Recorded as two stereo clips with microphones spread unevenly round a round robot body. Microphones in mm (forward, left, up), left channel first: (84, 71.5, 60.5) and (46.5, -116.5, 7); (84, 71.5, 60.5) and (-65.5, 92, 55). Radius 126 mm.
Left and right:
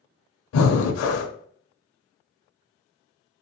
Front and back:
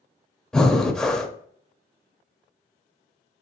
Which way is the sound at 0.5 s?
80° left.